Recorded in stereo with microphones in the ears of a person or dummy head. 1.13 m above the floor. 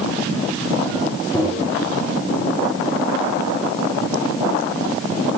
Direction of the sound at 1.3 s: 10° left (ahead or behind).